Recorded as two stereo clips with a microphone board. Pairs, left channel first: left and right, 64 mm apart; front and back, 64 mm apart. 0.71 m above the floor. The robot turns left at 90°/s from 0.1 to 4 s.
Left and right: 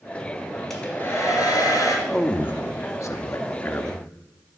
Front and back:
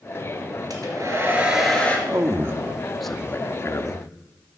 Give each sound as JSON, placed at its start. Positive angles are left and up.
{"t": 0.7, "sound": "a hair dryer", "azimuth_deg": 175, "distance_m": 2.0}
{"t": 2.1, "sound": "a man speaking", "azimuth_deg": 175, "distance_m": 0.8}